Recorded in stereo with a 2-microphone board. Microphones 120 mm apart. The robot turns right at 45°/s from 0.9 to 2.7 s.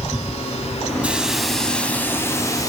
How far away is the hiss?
About 1.6 m.